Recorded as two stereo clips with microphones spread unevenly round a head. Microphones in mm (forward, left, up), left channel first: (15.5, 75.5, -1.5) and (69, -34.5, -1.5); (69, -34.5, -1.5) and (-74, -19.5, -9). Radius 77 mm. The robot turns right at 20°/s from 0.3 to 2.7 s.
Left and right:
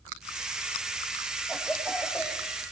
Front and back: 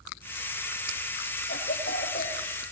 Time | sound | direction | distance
1.5 | a cough | 20° left | 6 m